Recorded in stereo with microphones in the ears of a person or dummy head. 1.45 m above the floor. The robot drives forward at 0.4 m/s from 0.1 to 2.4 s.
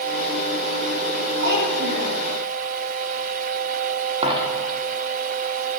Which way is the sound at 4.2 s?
35° right (ahead or behind).